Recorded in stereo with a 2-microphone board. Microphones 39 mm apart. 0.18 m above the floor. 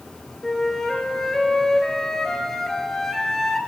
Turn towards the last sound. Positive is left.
turn(degrees=10)  # may be behind; listen again after turning